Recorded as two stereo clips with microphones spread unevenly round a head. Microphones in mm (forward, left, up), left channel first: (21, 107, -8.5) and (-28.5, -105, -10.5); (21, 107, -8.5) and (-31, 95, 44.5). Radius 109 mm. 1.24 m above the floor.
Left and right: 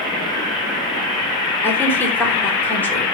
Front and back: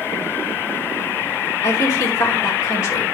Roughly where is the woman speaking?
Ahead.